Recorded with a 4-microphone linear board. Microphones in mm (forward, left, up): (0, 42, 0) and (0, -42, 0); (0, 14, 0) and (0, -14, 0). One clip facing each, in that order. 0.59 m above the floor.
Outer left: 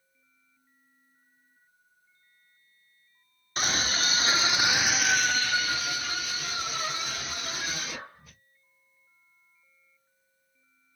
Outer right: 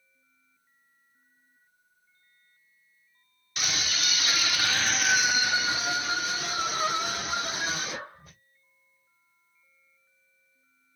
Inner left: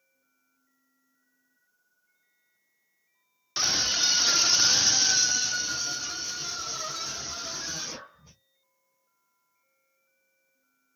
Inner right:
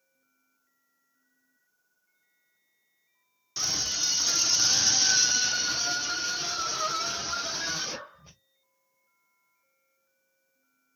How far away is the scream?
About 1.1 m.